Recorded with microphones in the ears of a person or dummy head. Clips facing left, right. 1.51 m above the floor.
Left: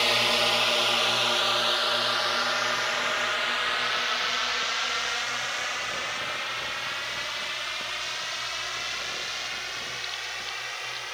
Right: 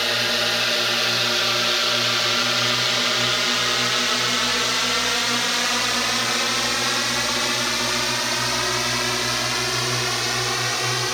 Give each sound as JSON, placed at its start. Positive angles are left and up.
{"t": 0.0, "sound": "a drone", "side_deg": -15}